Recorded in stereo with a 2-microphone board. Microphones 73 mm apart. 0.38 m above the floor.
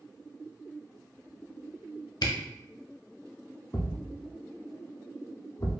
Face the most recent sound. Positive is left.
turn(degrees=40)  # may be behind; listen again after turning